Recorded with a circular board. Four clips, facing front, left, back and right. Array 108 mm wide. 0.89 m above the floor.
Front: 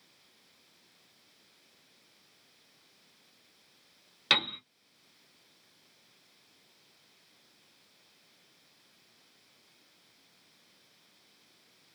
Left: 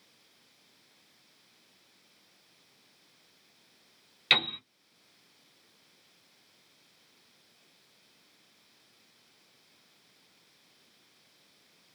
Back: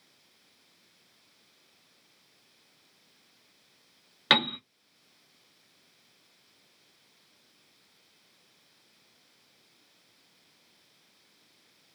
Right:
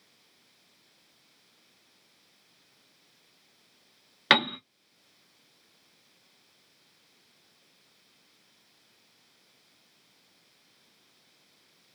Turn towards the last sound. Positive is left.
turn(degrees=-110)